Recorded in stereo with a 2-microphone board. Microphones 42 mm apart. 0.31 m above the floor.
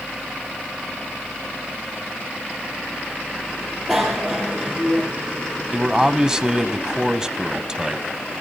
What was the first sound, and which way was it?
A bicycle bell, 5° right (ahead or behind).